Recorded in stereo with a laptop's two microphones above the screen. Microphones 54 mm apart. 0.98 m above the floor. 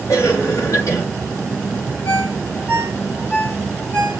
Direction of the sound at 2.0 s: 40° left (ahead or behind).